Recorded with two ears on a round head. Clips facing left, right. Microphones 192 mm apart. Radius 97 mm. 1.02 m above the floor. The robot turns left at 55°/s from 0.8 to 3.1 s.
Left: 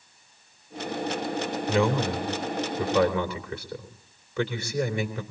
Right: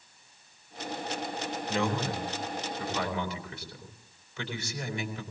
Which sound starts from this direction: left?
A man speaking, at 1.7 s.